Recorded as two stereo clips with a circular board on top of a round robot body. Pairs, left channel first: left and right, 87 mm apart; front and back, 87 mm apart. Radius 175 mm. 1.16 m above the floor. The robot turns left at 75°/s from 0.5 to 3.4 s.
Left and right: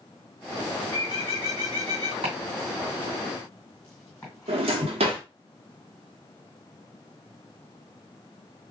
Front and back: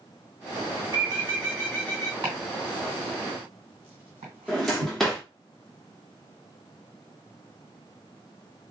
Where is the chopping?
110° right, 1.8 m; by 5.0 s 160° left, 1.8 m.